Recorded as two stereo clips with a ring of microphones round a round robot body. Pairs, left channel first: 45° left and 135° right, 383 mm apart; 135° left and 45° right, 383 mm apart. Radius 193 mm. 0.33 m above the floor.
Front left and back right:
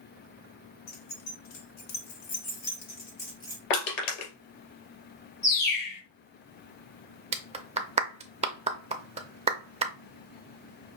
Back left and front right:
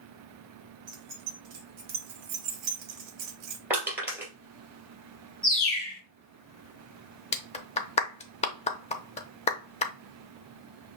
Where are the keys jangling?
15° left, 1.8 m; by 3.6 s 35° right, 1.2 m.